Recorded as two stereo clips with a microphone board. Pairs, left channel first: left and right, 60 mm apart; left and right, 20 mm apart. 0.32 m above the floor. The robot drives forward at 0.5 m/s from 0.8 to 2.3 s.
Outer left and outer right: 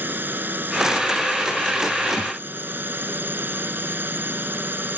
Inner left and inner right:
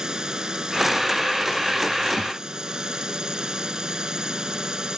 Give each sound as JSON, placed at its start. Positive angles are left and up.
{"t": 0.0, "sound": "a drone", "side_deg": -30}
{"t": 2.2, "sound": "a thud", "side_deg": -15}